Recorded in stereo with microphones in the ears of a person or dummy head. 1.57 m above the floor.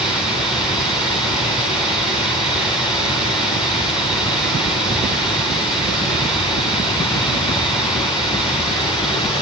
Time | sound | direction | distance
0.0 | running water | 5° right (ahead or behind) | 3 m